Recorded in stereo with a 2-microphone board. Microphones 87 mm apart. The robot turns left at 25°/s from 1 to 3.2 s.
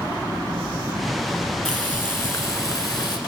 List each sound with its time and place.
1.6 s frying: 165° left, 1.8 m; by 3.2 s 130° left, 1.8 m